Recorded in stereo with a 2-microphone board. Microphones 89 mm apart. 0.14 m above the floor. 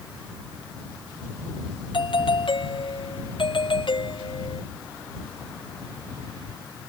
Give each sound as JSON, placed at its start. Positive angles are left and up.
{"t": 1.9, "sound": "a doorbell", "side_deg": 70}